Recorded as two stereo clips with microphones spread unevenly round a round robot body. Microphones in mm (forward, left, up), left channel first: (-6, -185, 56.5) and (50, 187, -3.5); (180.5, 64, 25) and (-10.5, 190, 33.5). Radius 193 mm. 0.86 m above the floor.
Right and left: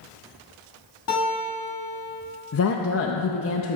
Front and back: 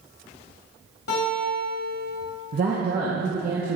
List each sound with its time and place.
1.1 s a guitar: 45° right, 2 m
2.5 s a woman speaking: 160° right, 0.5 m